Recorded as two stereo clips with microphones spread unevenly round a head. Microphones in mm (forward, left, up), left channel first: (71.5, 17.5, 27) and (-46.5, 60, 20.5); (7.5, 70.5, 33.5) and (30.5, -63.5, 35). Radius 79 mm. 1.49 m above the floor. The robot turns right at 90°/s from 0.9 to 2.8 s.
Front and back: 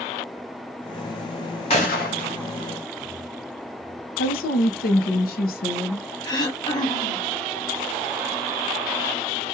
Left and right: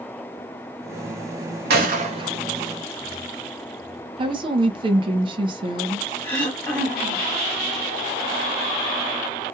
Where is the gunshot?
75° right, 1.0 m; by 2.4 s 15° right, 1.0 m.